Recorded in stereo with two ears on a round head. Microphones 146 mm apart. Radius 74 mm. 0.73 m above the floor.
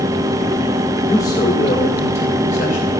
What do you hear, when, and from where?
1.1 s a man speaking: 20° left (ahead or behind), 2 m; by 2.9 s 50° left (ahead or behind), 3.5 m